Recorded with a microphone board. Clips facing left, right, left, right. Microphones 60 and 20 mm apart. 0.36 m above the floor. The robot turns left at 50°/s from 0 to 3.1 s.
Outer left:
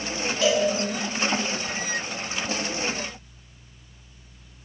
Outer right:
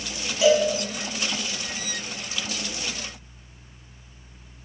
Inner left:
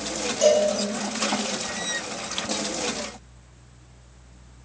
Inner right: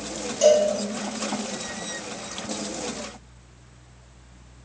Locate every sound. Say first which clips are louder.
0.4 s a cowbell: outer right 4 dB, inner right 2 dB; 10° right (ahead or behind), 0.7 m; by 0.7 s 5° left (ahead or behind), 0.7 m